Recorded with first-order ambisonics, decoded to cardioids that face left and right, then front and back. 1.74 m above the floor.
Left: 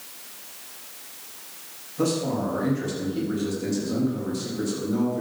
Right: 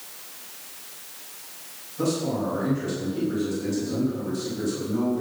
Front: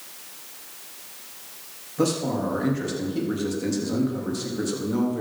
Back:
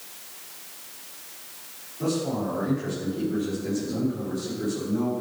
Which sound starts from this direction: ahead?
A man speaking, at 2.0 s.